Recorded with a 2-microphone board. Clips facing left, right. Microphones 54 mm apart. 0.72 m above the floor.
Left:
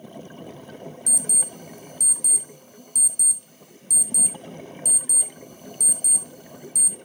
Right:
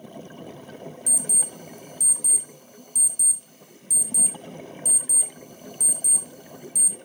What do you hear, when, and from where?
1.1 s an alarm clock: 55° left (ahead or behind), 0.8 m